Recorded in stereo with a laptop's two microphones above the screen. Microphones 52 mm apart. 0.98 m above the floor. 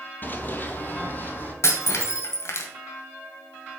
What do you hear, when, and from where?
0.2 s running footsteps: 35° left (ahead or behind), 1.6 m
1.6 s breaking glass: 60° left (ahead or behind), 1.8 m